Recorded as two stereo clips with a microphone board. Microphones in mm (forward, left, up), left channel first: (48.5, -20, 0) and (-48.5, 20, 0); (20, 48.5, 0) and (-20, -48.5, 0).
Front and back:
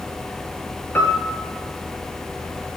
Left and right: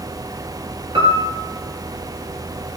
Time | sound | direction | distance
0.9 | a piano | 90° right | 1.7 m